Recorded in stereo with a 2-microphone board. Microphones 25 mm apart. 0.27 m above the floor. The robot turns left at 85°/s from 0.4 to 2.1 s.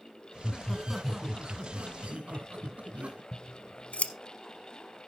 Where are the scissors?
70° left (ahead or behind), 0.8 m.